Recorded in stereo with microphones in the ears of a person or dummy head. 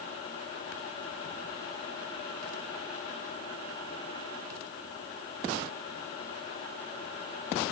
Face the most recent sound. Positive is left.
No sound to turn to.